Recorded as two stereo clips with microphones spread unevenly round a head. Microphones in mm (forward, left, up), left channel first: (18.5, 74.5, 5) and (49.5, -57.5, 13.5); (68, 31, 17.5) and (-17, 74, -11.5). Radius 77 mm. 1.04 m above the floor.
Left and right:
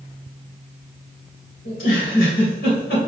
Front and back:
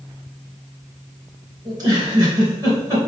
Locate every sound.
1.6 s a giggle: 105° left, 3.5 m